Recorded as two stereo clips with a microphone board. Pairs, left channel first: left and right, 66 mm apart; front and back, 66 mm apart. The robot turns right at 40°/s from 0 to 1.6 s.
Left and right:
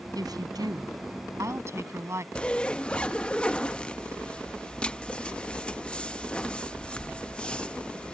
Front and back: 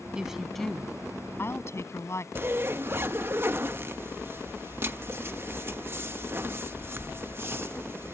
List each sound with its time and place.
0.1 s a woman speaking: 105° right; by 2.2 s 45° right
2.4 s a zipper: 155° left